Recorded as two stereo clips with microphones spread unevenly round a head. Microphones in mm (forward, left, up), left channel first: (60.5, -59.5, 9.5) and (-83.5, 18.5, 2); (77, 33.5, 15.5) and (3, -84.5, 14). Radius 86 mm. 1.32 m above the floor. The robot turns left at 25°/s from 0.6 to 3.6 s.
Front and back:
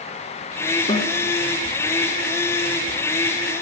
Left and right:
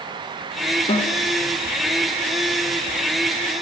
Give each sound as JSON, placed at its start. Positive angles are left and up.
{"t": 0.9, "sound": "a snare drum", "azimuth_deg": 20, "distance_m": 1.2}